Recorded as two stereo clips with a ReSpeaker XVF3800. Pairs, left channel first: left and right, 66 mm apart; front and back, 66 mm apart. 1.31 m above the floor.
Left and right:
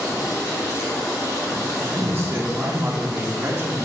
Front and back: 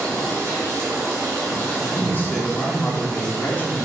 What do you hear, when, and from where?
0.0 s running water: 130° left, 1.8 m
1.8 s a man speaking: 50° right, 0.7 m